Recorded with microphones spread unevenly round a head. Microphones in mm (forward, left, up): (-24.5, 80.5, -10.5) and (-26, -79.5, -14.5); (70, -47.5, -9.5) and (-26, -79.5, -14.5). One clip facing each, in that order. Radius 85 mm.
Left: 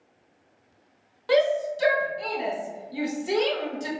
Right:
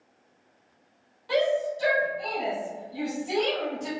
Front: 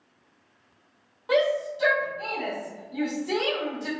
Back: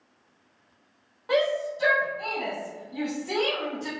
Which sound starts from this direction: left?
A shout, at 1.3 s.